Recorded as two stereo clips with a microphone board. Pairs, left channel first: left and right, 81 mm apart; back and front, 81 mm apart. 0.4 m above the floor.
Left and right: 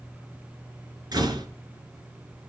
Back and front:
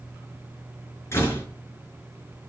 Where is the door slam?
125° right, 4.5 m.